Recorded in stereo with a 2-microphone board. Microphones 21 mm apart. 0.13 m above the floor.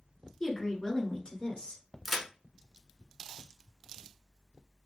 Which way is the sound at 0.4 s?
25° left (ahead or behind).